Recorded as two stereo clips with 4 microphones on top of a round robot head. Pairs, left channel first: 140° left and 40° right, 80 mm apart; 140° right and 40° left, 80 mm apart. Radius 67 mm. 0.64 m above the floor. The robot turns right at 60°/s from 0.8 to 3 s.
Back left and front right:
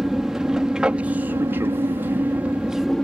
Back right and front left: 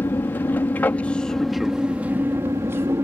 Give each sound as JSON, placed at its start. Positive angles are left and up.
{"t": 0.0, "sound": "an aircraft", "azimuth_deg": -115}